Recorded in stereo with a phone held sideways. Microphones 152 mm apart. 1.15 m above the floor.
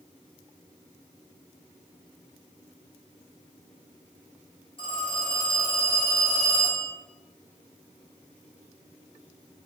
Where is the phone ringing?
40° left (ahead or behind), 1.6 m.